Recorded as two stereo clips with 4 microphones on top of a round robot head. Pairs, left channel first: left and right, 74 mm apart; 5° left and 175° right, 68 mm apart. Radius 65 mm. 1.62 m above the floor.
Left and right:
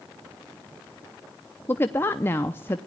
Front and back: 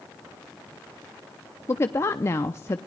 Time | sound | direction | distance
1.7 | a woman speaking | 40° left | 0.6 m